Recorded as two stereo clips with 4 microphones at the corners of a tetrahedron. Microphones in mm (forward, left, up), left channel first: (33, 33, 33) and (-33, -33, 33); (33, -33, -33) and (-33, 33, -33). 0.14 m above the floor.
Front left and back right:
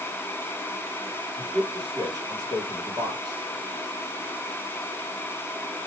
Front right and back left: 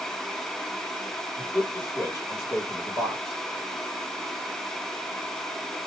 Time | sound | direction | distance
1.4 | a man speaking | 100° right | 2.5 m